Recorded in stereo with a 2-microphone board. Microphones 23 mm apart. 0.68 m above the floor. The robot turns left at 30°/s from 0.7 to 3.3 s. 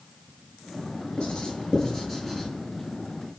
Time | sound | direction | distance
1.2 | writing | 45° left (ahead or behind) | 8.5 m